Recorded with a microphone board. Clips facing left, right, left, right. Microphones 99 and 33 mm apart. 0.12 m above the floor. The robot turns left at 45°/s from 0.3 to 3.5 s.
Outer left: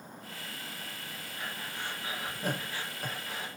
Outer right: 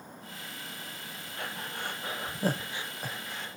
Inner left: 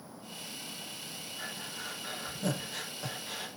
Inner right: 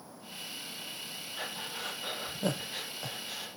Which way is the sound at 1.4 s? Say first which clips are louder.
Outer right 3 dB, inner right 3 dB; 70° right (ahead or behind).